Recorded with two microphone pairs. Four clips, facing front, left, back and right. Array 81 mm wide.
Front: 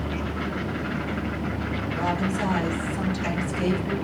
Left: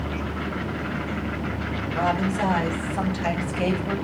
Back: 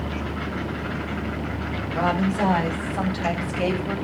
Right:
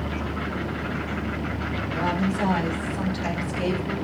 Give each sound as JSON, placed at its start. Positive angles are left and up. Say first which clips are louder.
{"t": 1.9, "sound": "a woman speaking", "louder": "left 2 dB, back 5 dB", "azimuth_deg": 150, "distance_m": 7.0}